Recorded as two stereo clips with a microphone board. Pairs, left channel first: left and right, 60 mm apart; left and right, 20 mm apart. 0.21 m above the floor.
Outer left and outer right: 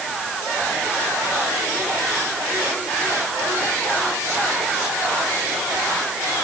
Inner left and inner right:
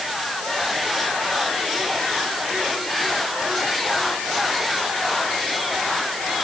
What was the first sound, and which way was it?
Only background noise.